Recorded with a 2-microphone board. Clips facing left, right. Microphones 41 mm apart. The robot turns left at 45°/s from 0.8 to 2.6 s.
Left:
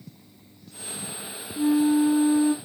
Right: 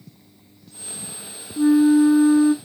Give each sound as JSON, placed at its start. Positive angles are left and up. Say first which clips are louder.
{"t": 1.6, "sound": "a flute", "louder": "right 6 dB", "azimuth_deg": -70, "distance_m": 0.7}